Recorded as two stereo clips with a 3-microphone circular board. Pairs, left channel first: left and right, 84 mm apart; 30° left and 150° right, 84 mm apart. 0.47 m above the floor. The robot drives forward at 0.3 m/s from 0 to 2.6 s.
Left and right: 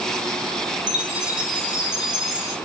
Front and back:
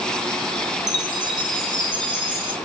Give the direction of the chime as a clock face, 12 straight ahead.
6 o'clock.